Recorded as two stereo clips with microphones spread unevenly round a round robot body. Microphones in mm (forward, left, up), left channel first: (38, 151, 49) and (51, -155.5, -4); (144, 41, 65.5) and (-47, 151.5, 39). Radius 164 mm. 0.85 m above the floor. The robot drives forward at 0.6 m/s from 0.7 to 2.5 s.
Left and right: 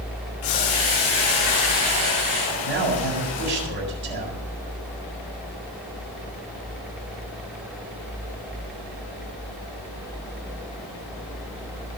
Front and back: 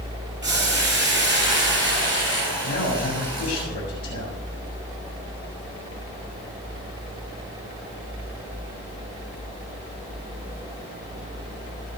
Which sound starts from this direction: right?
A man speaking, at 2.6 s.